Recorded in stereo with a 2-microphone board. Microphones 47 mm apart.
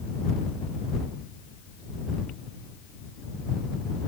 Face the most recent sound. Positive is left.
No sound to turn to.